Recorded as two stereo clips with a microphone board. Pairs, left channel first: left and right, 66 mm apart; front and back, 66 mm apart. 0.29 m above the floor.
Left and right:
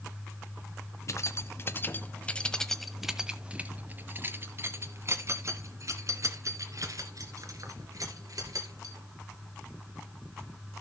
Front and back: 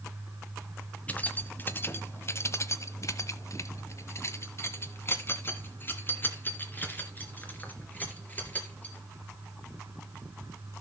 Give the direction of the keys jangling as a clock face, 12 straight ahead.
10 o'clock.